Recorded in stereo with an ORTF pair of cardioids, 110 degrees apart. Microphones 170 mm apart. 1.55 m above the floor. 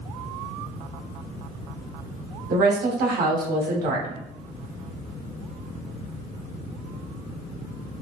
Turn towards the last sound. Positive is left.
turn(degrees=-65)